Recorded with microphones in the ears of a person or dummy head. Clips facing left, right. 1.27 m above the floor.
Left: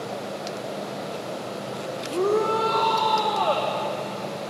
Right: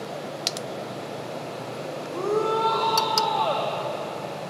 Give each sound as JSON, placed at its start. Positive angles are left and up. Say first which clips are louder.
{"t": 2.1, "sound": "a shout", "louder": "left 2 dB", "side_deg": 35, "distance_m": 0.8}